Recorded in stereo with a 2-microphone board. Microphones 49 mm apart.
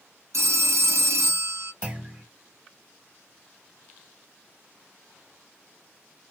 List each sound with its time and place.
0.3 s a phone ringing: 70° right (ahead or behind), 0.7 m
1.8 s a clunk: 20° right (ahead or behind), 1.5 m